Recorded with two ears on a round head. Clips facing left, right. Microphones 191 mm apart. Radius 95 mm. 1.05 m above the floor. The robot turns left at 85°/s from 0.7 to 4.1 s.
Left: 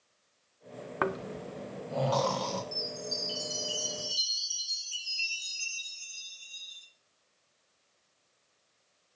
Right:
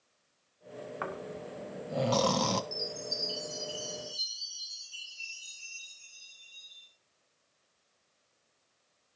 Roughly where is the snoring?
Left.